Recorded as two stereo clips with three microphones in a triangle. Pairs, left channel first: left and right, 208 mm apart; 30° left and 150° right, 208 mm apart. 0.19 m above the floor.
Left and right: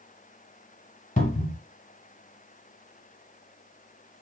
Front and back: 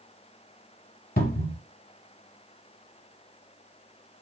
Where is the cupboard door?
55° left, 0.8 m.